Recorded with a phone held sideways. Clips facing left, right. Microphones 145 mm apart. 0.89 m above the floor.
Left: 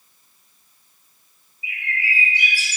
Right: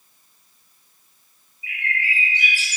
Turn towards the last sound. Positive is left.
turn(degrees=10)  # may be behind; listen again after turning